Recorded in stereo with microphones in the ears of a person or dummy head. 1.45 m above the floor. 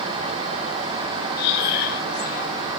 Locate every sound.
1.4 s breathing: 65° left (ahead or behind), 2.5 m